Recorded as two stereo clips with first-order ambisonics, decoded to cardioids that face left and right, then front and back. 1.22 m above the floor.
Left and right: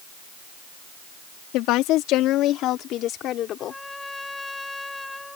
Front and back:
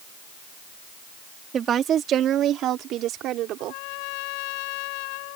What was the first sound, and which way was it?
A woman speaking, 120° left.